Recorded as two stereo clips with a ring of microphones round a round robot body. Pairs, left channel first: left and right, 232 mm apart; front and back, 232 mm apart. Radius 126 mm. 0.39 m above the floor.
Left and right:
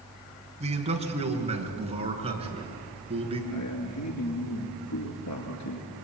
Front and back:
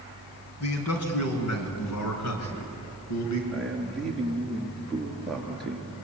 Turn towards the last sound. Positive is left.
turn(degrees=90)